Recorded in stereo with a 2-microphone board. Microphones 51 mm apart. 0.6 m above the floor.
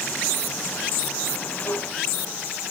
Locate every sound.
1.7 s a snare drum: 75° left (ahead or behind), 10 m